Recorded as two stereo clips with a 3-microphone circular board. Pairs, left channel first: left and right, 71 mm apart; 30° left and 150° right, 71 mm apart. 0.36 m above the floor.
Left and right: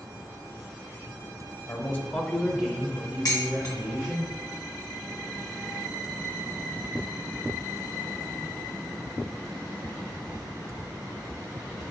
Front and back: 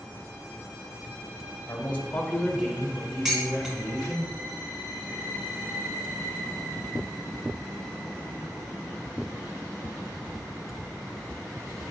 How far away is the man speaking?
About 1.3 m.